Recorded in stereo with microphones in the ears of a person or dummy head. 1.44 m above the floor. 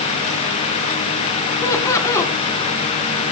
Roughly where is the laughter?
Centre.